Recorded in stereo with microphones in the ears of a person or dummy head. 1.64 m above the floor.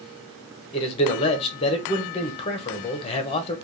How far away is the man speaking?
About 0.9 m.